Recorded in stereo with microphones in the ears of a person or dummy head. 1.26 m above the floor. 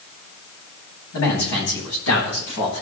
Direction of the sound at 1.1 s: 75° left (ahead or behind).